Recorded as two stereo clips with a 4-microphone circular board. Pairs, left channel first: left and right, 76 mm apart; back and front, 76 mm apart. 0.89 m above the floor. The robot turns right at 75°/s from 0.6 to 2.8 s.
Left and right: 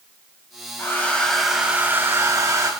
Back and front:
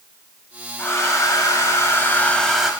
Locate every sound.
0.8 s a hair dryer: 135° left, 0.9 m; by 2.7 s 80° right, 0.9 m